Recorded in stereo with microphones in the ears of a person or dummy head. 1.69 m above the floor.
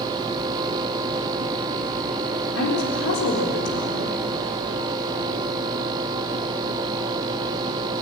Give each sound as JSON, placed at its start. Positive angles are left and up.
{"t": 2.5, "sound": "a woman speaking", "side_deg": 75, "distance_m": 4.0}